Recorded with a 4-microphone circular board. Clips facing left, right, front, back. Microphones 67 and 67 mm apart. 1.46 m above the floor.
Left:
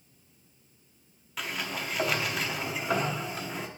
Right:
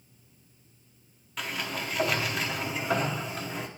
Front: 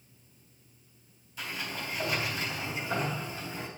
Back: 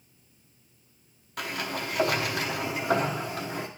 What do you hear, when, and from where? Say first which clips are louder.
1.4 s a sliding door: right 1 dB, back 5 dB; 175° left, 0.7 m